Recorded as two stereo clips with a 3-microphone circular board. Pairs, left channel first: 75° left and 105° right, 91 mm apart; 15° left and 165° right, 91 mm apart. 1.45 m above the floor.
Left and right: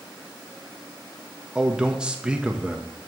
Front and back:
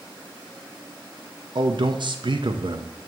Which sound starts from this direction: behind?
A man speaking, at 1.6 s.